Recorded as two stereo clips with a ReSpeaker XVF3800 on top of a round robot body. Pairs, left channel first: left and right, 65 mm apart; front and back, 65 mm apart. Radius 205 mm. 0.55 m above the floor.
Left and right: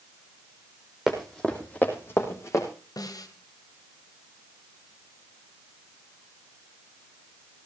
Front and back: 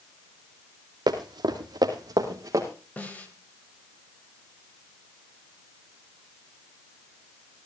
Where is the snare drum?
70° left, 1.7 m.